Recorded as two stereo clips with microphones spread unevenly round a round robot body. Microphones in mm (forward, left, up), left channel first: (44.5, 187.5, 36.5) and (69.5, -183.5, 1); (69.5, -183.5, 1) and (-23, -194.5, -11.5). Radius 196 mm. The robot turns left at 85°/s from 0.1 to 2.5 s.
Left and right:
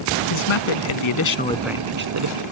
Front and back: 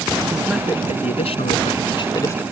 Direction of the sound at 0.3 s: 120° left.